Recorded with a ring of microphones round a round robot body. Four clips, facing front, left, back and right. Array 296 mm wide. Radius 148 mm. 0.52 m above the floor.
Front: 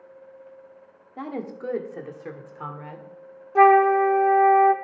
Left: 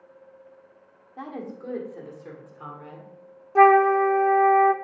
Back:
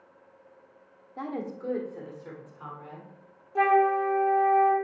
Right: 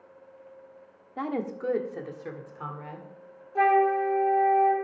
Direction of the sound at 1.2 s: 75° right.